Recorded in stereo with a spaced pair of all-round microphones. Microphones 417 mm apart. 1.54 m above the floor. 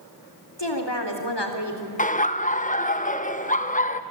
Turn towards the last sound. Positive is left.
turn(degrees=20)  # may be behind; listen again after turning